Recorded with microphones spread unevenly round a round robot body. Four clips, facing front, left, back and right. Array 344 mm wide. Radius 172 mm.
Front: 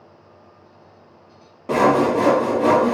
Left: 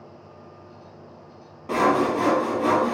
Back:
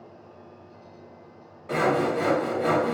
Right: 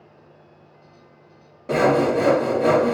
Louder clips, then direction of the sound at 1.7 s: Right 3 dB, front 7 dB; 25° right.